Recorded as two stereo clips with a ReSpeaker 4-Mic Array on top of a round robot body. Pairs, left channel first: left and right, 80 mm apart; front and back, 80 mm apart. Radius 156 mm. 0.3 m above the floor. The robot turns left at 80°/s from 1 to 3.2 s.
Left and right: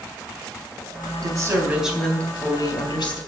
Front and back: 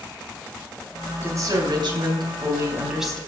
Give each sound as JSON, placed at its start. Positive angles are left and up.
{"t": 1.2, "sound": "a woman speaking", "azimuth_deg": -120, "distance_m": 4.0}